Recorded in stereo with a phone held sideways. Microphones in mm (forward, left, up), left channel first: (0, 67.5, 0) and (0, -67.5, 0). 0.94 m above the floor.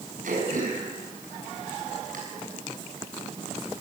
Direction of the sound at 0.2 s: 80° right.